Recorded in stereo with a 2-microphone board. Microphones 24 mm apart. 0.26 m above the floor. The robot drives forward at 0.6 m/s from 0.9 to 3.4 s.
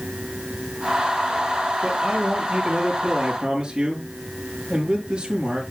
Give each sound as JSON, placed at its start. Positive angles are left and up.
{"t": 1.8, "sound": "a man speaking", "side_deg": -35, "distance_m": 5.5}